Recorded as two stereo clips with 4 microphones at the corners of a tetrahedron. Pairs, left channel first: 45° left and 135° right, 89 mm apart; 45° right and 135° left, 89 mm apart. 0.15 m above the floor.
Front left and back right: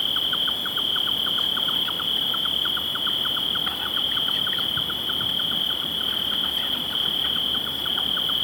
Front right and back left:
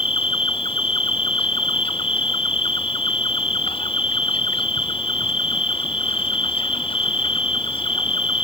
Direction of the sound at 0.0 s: 45° right.